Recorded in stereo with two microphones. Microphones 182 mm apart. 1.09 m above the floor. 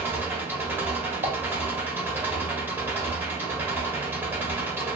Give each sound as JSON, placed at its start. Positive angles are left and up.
{"t": 0.0, "sound": "an engine running", "side_deg": -10, "distance_m": 0.9}
{"t": 1.2, "sound": "dishes clattering", "side_deg": -40, "distance_m": 0.5}